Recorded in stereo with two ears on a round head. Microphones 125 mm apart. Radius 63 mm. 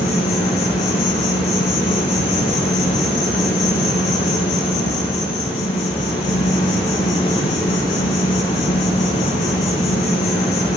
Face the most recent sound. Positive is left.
turn(degrees=45)  # may be behind; listen again after turning